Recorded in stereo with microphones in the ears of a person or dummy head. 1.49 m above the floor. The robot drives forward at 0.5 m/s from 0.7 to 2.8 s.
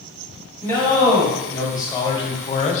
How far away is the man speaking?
About 1.4 m.